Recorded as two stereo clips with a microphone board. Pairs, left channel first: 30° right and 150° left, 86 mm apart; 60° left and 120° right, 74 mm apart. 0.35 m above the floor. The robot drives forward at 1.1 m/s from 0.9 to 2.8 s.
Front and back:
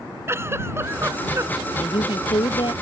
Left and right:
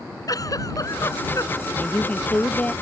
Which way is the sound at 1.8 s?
10° right.